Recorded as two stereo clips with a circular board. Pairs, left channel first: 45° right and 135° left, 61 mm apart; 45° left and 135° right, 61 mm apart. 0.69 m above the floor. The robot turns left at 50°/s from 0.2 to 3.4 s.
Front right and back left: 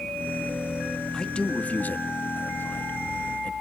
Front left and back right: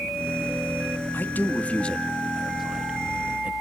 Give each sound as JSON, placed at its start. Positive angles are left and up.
{"t": 1.1, "sound": "a man speaking", "azimuth_deg": 25, "distance_m": 1.3}